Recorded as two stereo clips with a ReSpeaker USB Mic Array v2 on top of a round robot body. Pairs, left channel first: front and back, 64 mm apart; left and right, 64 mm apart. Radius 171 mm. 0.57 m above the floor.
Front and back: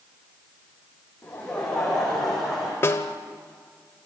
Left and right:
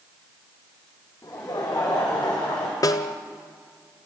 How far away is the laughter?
About 4 m.